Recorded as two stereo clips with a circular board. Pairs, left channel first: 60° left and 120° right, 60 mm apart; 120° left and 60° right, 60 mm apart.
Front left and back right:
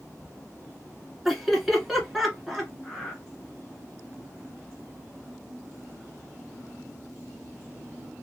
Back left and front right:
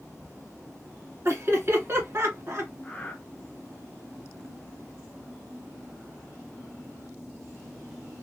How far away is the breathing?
About 1.0 m.